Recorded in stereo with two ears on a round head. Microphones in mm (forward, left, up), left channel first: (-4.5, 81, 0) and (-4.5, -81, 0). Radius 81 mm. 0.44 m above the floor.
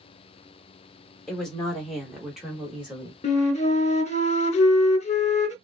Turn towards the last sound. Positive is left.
turn(degrees=35)  # may be behind; listen again after turning